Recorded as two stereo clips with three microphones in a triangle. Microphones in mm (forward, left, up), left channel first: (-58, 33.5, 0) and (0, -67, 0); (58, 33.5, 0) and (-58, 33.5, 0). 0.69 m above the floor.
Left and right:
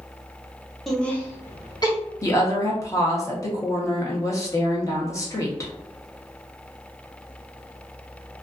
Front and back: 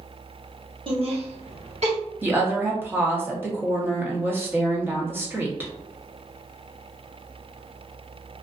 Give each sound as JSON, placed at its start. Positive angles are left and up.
{"t": 0.9, "sound": "laughter", "azimuth_deg": -150, "distance_m": 0.9}
{"t": 2.2, "sound": "a woman speaking", "azimuth_deg": 130, "distance_m": 0.8}